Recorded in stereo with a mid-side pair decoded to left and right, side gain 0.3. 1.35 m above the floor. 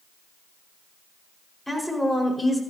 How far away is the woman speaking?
About 5.5 m.